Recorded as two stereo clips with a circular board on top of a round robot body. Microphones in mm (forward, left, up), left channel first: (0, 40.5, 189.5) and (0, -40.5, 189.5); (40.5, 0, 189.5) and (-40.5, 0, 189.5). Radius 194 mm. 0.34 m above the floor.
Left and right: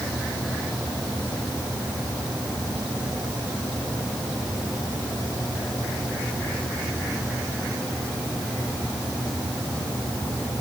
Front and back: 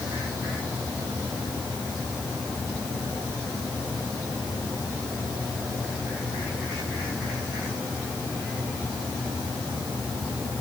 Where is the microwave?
I don't hear a microwave.